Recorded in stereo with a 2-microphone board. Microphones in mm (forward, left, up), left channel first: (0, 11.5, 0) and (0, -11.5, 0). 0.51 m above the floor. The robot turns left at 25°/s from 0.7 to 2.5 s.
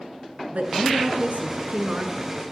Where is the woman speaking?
85° right, 6 m; by 2.3 s 125° right, 6 m.